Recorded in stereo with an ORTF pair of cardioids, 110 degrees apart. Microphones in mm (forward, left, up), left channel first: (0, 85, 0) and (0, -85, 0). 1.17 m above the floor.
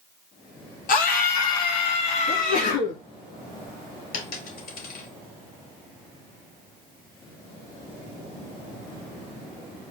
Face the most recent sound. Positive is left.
turn(degrees=70)